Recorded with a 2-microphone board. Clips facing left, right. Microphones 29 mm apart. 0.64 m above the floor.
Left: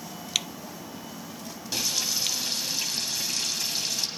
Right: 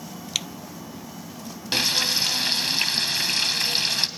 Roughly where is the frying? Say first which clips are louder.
Right 6 dB; right.